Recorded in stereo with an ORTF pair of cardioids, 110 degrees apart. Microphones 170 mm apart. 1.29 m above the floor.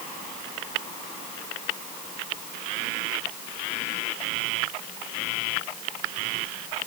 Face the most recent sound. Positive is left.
No sound to turn to.